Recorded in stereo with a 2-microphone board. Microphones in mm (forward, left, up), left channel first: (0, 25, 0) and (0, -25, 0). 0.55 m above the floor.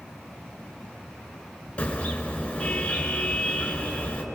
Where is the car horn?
25° left (ahead or behind), 3.5 m.